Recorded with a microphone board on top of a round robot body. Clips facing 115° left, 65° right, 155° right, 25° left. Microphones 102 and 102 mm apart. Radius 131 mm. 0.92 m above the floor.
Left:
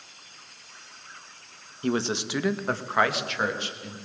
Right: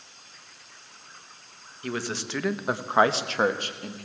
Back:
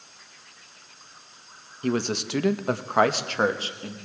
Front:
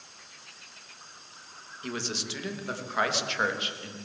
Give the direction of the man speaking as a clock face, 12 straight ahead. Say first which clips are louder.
Left 5 dB, back 10 dB; 6 o'clock.